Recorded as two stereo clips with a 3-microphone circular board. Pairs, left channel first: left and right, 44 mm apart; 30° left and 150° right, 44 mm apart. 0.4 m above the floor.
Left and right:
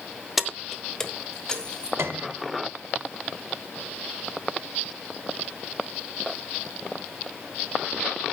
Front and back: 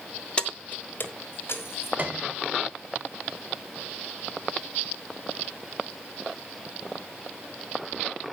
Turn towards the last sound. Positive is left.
turn(degrees=-100)